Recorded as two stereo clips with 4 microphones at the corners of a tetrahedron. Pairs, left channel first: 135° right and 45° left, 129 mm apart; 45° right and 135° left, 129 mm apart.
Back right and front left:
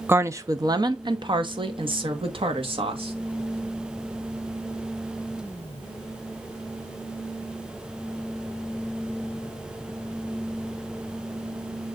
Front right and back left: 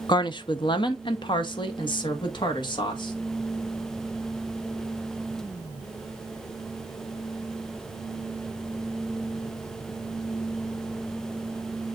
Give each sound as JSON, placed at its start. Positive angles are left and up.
{"t": 0.1, "sound": "a woman speaking", "azimuth_deg": -20, "distance_m": 0.6}